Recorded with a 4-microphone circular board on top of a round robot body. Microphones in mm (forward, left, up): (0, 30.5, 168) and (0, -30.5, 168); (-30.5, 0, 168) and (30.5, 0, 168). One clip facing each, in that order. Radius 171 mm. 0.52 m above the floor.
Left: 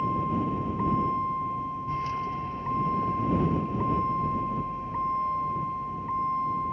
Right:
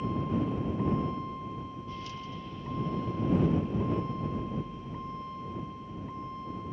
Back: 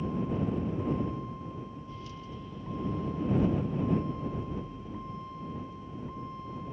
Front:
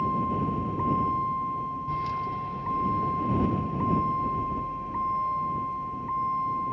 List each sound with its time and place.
0.0 s a vehicle: 35° left; by 6.7 s 40° left